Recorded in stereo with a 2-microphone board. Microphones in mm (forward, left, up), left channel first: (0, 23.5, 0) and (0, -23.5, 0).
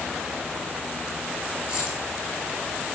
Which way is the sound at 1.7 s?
20° right (ahead or behind).